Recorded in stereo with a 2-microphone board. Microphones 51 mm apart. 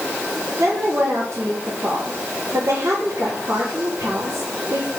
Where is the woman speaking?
65° right (ahead or behind), 5 m.